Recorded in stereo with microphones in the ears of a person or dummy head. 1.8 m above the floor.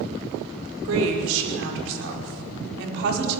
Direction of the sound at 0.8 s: 75° right (ahead or behind).